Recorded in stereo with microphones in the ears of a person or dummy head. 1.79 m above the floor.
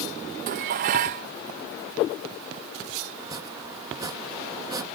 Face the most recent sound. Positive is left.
turn(degrees=-20)  # may be behind; listen again after turning